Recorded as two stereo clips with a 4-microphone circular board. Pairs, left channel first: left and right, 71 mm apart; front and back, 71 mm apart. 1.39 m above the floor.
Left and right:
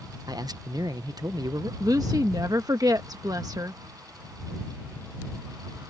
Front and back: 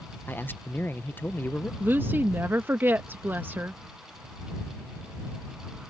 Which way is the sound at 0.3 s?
65° right.